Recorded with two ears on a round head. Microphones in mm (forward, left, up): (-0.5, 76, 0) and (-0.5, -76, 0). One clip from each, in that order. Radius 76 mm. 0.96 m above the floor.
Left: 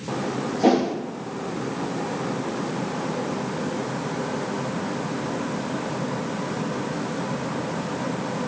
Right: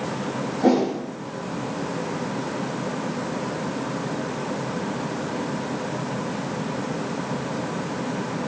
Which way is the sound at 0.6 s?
60° left (ahead or behind).